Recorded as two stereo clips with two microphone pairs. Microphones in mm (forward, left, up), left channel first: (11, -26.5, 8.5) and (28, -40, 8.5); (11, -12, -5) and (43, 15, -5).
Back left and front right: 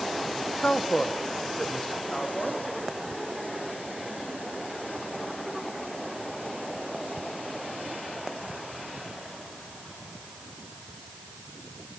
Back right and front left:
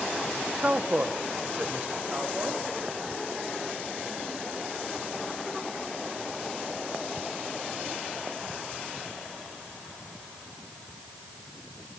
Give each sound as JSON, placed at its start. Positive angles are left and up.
{"t": 0.6, "sound": "a woman speaking", "azimuth_deg": 100, "distance_m": 0.8}